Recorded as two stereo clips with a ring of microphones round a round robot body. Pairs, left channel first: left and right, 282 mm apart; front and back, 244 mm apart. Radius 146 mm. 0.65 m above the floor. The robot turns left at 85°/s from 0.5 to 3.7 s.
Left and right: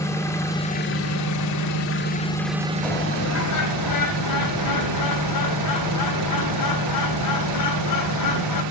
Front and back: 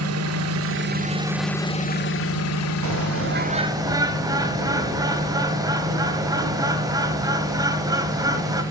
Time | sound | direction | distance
0.0 | an engine running | 170° left | 1.8 m
2.8 | a bird | straight behind | 2.5 m